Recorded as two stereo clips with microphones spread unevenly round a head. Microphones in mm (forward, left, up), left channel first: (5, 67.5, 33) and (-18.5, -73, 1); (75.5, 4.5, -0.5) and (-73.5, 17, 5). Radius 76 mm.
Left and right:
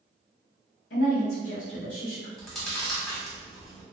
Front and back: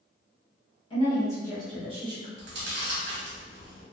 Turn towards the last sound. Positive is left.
turn(degrees=170)